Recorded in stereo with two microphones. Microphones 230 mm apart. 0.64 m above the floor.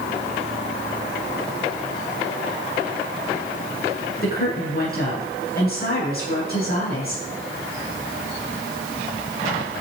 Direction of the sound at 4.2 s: 40° left (ahead or behind).